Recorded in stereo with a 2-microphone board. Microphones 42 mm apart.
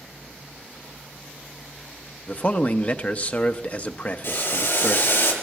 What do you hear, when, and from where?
2.3 s a man speaking: 40° left (ahead or behind), 0.7 m
4.2 s boiling: 70° left (ahead or behind), 4.5 m